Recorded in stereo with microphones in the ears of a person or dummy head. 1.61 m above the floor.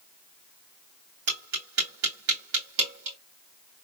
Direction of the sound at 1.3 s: 65° right (ahead or behind).